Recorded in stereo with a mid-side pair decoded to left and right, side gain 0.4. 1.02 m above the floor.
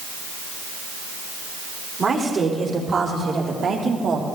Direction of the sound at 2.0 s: 45° right.